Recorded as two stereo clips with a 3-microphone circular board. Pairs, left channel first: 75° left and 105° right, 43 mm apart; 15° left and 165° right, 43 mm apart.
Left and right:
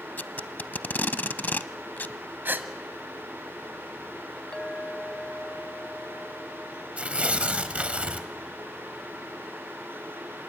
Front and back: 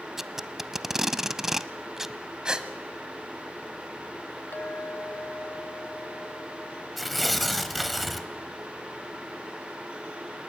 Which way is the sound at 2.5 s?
105° right.